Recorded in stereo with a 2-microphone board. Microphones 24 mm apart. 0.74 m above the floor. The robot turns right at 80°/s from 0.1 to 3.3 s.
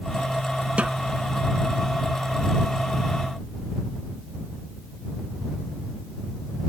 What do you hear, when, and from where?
0.8 s a snare drum: 60° right (ahead or behind); by 1.0 s 45° right (ahead or behind)